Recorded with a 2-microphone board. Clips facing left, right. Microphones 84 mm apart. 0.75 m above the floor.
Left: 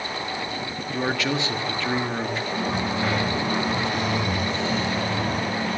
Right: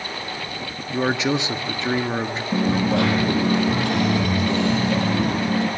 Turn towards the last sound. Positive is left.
turn(degrees=-60)  # may be behind; listen again after turning